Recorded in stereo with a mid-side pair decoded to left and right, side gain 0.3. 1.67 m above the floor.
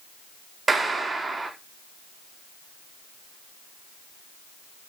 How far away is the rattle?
No rattle in this recording.